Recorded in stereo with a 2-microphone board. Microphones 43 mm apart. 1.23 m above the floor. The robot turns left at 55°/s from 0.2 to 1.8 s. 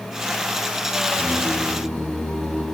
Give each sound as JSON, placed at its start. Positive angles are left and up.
{"t": 1.1, "sound": "singing", "azimuth_deg": 80, "distance_m": 3.5}